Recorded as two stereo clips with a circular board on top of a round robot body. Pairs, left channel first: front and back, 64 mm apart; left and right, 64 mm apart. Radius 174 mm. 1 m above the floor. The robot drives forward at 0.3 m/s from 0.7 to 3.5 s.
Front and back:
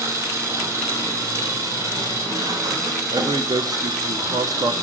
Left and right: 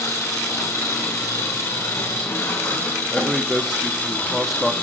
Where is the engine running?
135° left, 2.5 m; by 4.8 s 145° left, 3 m.